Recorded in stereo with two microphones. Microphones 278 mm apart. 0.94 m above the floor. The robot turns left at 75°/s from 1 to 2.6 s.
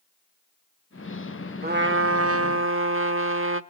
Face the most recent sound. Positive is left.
turn(degrees=-115)